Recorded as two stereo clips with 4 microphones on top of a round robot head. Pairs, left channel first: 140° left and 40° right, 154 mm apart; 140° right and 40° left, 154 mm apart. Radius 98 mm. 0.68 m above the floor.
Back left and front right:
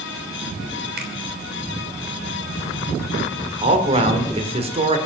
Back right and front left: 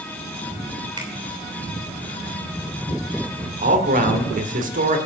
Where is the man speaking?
10° left, 2.5 m.